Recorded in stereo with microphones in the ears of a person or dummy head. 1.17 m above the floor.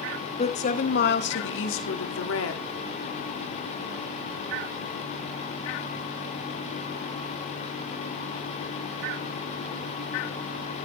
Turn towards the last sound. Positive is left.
turn(degrees=80)